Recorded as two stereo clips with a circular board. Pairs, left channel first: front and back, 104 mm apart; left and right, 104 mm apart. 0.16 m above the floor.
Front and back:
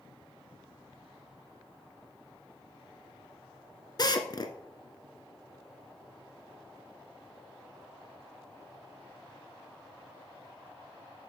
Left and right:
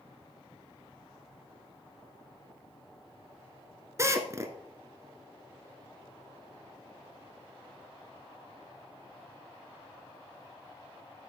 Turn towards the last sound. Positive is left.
turn(degrees=-35)